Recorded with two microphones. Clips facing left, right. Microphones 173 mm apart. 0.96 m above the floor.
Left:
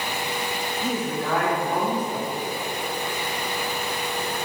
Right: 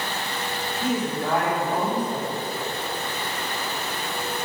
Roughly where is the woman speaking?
Centre.